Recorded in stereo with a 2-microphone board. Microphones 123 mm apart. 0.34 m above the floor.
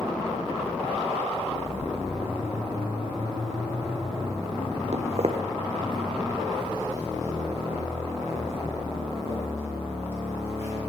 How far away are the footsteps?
About 0.6 m.